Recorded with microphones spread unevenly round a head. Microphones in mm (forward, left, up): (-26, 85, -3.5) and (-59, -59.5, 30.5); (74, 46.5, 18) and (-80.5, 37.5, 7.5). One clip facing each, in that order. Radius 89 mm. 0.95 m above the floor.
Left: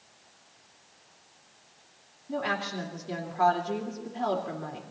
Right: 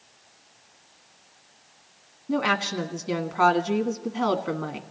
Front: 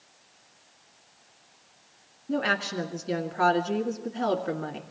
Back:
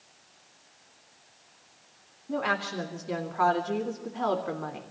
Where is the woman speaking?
70° right, 1.5 m.